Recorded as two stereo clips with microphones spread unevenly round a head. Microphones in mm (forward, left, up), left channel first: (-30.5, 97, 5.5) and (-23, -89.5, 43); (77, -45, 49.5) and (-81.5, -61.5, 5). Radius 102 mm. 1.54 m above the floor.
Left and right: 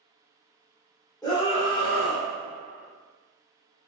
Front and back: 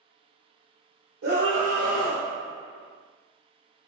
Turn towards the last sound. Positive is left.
turn(degrees=100)